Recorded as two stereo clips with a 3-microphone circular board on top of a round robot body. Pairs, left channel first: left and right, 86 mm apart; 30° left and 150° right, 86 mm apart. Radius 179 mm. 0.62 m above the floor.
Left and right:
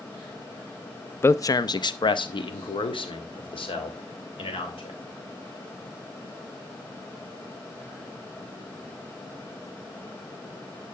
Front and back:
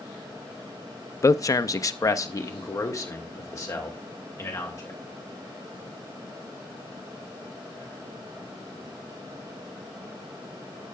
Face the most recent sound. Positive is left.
turn(degrees=85)